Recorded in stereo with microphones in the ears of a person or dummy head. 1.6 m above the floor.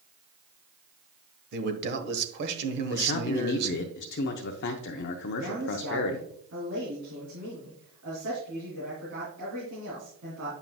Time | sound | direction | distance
1.5 | a man speaking | 60° right (ahead or behind) | 1.3 m
2.9 | a man speaking | 60° left (ahead or behind) | 0.6 m
5.4 | a man speaking | 75° right (ahead or behind) | 3 m